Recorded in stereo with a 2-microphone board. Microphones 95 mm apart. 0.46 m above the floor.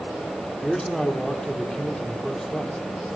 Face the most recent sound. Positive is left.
turn(degrees=5)  # may be behind; listen again after turning